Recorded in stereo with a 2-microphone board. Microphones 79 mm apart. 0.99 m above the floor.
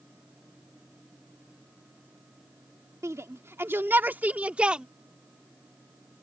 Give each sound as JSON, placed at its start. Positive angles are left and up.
{"t": 3.0, "sound": "a shout", "side_deg": -45}